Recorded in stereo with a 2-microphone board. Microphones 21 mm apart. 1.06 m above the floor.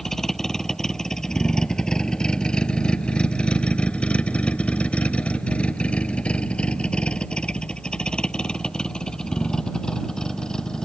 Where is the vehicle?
20° left (ahead or behind); by 10.9 s 35° left (ahead or behind).